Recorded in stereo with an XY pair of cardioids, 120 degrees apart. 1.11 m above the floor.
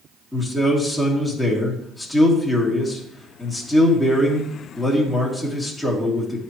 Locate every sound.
0.3 s a man speaking: 5° left, 2.5 m